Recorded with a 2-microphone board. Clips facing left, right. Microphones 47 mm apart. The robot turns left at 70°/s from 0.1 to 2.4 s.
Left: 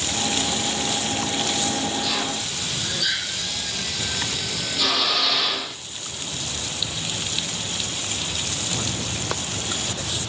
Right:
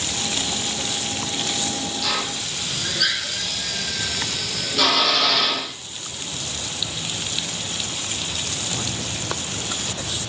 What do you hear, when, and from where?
2.0 s a drill: 85° right, 8.5 m; by 5.7 s 65° right (ahead or behind), 8.5 m